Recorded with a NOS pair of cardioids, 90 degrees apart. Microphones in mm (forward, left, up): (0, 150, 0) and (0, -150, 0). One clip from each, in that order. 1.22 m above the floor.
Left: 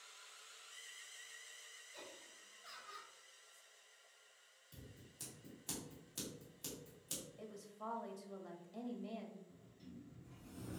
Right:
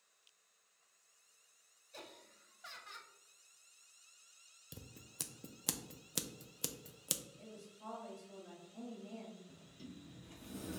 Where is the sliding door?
60° right, 0.6 m.